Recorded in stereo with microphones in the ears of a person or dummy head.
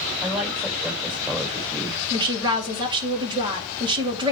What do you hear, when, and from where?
0.2 s a woman speaking: centre (ahead or behind), 6 m
2.1 s a woman speaking: 25° right (ahead or behind), 3 m